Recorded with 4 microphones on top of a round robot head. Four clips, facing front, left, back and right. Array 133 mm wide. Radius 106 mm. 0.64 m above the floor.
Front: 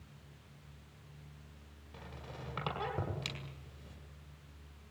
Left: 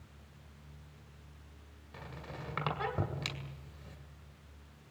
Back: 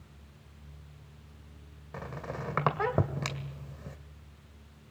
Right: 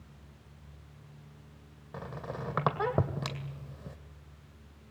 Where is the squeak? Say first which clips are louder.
Right 7 dB, back 11 dB; 135° right, 2 m.